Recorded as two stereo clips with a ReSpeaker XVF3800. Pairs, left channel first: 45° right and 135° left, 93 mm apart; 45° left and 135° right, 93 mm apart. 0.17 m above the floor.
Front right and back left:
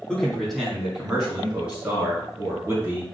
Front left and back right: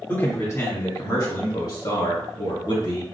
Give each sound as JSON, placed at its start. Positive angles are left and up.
{"t": 0.1, "sound": "a man speaking", "azimuth_deg": 25, "distance_m": 1.3}